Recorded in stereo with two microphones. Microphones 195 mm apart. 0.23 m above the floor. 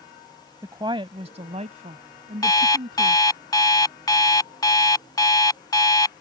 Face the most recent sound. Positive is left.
turn(degrees=20)  # may be behind; listen again after turning